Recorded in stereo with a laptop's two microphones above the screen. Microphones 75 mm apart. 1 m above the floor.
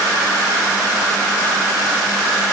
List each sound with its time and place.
Only background noise.